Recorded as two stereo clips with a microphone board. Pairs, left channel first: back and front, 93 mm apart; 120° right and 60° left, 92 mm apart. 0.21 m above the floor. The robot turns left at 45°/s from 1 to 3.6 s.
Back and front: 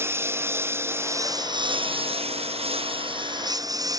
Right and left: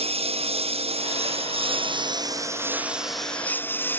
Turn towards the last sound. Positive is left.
turn(degrees=-50)